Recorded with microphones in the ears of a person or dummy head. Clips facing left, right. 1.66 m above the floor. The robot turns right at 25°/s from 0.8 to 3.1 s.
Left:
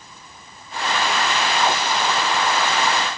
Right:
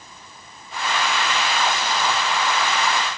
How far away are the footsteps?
No footsteps in this recording.